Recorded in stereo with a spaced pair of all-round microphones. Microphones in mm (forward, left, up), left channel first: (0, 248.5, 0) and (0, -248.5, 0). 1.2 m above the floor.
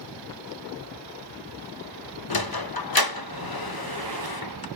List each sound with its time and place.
2.3 s a sliding door: 45° left (ahead or behind), 0.7 m